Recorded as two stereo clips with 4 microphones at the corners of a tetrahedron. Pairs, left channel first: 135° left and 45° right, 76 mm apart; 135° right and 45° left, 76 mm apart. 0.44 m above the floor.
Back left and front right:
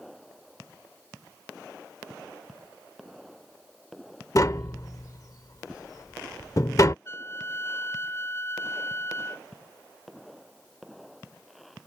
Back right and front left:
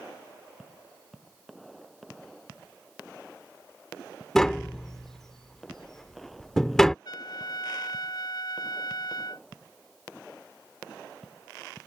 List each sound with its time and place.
4.3 s tapping: 145° left
7.0 s a trumpet: 170° right